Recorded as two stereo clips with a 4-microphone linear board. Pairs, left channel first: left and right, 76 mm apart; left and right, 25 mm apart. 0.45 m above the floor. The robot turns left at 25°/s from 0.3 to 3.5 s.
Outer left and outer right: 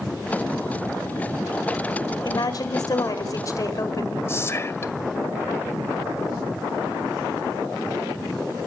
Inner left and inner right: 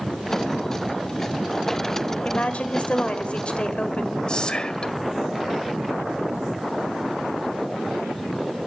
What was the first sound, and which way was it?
A woman speaking, 90° left.